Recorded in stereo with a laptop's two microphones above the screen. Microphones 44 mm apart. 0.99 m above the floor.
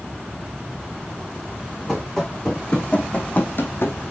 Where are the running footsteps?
5° left (ahead or behind), 2.5 m; by 4.0 s 60° left (ahead or behind), 1.8 m.